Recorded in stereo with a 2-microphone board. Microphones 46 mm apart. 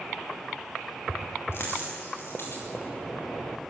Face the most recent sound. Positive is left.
turn(degrees=60)  # may be behind; listen again after turning